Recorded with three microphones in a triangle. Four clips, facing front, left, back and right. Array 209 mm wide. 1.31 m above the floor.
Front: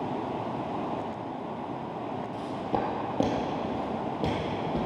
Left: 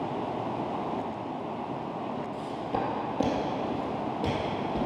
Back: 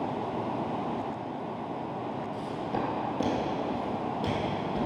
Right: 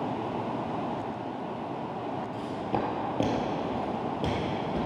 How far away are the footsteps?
About 1.9 m.